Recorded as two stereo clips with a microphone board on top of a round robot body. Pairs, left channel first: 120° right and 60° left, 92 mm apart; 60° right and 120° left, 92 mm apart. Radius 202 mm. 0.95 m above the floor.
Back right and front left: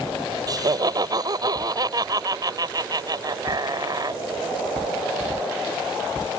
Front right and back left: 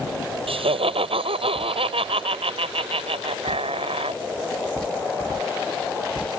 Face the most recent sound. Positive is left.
turn(degrees=110)